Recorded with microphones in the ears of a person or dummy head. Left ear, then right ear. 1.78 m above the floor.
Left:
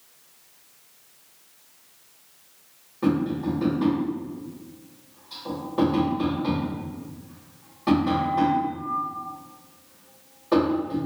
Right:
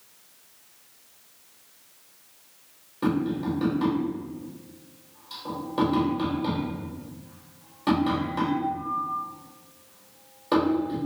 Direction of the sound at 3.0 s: 25° right (ahead or behind).